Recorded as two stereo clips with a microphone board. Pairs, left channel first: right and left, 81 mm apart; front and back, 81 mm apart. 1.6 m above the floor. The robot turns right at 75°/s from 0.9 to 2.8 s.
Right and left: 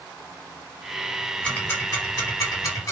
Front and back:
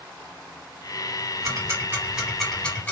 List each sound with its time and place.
1.4 s ticking: 165° right, 1.9 m; by 2.9 s 60° right, 1.9 m